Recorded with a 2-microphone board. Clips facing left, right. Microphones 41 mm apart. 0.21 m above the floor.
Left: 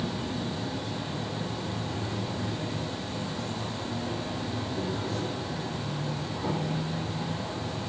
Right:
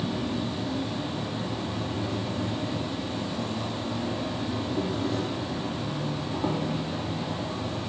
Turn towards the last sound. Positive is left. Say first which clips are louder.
# right 3 dB
turn(degrees=-30)  # may be behind; listen again after turning